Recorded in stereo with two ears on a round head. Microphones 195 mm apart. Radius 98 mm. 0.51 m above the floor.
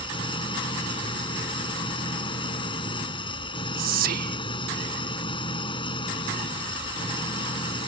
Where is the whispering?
40° right (ahead or behind).